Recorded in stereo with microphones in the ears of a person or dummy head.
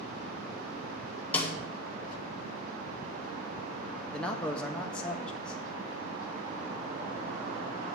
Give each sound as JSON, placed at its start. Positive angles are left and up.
{"t": 1.3, "sound": "a snare drum", "side_deg": 5, "distance_m": 1.5}
{"t": 4.1, "sound": "a man speaking", "side_deg": 5, "distance_m": 0.8}